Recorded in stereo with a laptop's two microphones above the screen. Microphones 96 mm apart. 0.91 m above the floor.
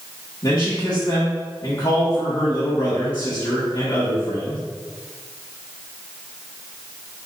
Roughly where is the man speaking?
Left.